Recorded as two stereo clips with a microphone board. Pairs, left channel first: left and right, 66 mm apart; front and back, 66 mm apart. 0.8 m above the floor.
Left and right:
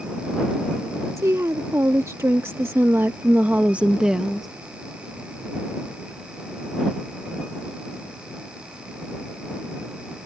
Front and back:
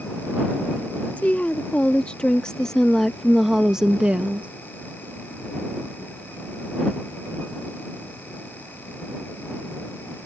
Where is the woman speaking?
65° right; by 4.5 s 175° right.